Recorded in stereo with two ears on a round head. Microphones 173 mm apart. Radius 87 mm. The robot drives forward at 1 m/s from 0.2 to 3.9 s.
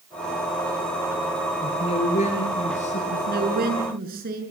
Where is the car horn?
I don't hear a car horn.